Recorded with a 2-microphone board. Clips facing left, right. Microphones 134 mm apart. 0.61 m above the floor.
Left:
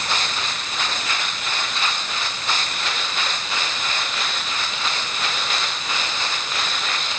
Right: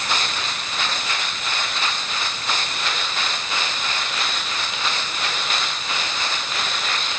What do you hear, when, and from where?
Only background noise.